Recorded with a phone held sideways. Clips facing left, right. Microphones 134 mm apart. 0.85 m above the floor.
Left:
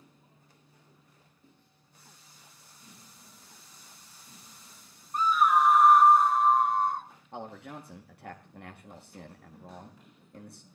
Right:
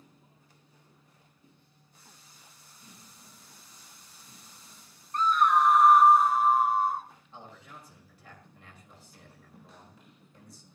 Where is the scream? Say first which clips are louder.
Even; 10° left (ahead or behind), 0.6 m; by 7.1 s 5° right (ahead or behind), 2.0 m.